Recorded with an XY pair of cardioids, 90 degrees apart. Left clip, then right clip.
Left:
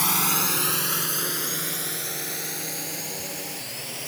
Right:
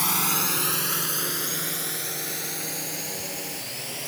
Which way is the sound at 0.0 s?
15° left.